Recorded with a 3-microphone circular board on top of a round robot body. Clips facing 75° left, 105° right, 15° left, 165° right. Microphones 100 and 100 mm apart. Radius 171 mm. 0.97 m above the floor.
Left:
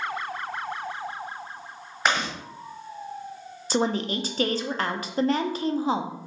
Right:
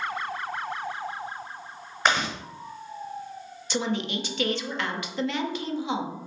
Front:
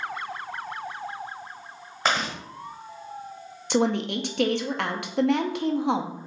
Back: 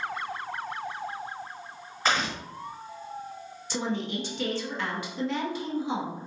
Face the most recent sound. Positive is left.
turn(degrees=25)